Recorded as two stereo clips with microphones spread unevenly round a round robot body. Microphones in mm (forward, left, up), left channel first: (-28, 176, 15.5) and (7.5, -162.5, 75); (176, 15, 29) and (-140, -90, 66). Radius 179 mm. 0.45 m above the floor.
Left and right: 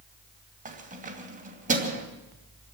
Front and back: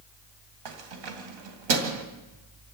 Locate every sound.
0.7 s keys jangling: 155° right, 2.5 m